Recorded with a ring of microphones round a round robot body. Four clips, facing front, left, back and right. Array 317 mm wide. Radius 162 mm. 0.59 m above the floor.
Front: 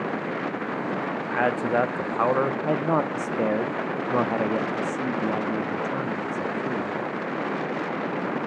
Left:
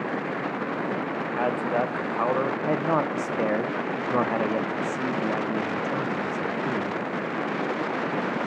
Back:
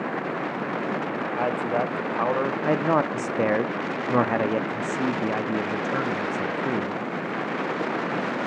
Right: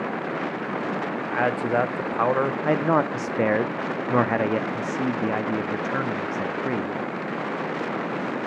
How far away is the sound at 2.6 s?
About 0.7 m.